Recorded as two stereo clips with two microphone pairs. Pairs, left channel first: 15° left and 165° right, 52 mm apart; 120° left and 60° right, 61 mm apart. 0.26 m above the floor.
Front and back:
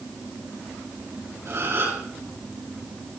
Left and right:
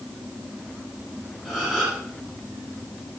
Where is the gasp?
150° right, 7 m.